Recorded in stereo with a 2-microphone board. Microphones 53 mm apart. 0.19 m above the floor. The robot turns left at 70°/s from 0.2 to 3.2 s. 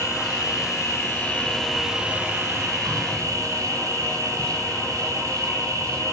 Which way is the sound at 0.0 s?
110° left.